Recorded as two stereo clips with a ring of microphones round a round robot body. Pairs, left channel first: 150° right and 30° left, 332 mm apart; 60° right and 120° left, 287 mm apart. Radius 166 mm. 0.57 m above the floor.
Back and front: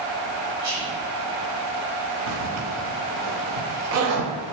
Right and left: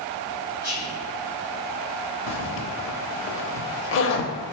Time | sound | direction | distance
0.6 | whispering | 40° left | 1.5 m
2.3 | a zipper | 15° right | 0.6 m